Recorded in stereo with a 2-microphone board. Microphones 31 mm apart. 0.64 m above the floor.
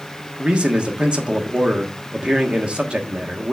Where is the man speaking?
35° right (ahead or behind), 1.3 m.